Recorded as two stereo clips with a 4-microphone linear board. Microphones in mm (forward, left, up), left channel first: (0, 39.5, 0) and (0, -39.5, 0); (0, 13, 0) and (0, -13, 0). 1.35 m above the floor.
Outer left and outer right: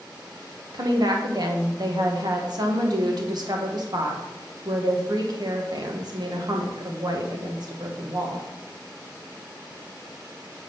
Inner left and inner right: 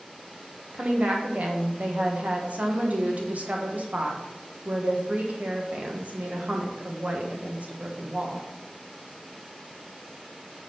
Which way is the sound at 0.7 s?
55° right (ahead or behind).